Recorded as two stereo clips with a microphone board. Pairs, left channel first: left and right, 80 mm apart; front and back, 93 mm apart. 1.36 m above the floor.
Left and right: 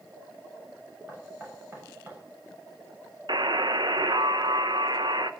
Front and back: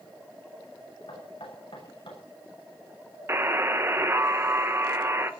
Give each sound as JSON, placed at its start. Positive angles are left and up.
{"t": 1.1, "sound": "knocking", "azimuth_deg": -25, "distance_m": 7.5}
{"t": 3.3, "sound": "a buzzer", "azimuth_deg": -115, "distance_m": 1.0}